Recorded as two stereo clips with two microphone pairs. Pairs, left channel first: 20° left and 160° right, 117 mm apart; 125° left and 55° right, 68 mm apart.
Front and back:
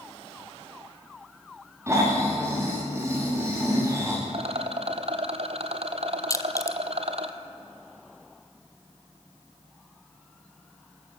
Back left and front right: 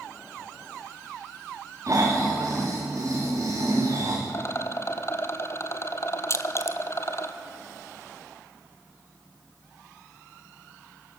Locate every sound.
1.9 s snoring: 95° right, 5.5 m
4.3 s a rattle: 175° left, 1.2 m
6.3 s crushing: 80° left, 0.9 m